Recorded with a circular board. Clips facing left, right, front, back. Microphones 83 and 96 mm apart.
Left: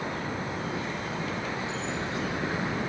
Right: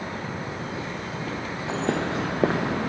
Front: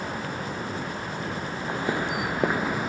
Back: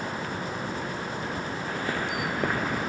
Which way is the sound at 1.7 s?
70° right.